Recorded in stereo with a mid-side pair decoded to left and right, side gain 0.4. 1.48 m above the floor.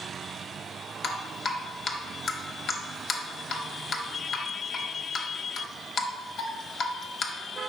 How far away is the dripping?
About 0.7 m.